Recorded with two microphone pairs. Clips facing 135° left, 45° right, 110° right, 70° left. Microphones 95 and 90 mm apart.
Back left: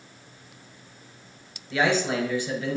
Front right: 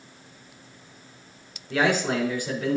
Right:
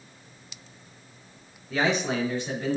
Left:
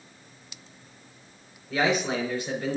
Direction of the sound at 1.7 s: 20° right.